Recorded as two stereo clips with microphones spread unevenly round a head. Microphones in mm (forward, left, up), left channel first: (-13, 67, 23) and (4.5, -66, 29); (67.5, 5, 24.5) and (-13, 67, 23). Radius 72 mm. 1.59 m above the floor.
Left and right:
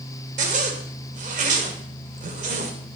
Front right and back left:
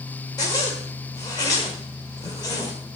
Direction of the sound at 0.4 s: 95° right.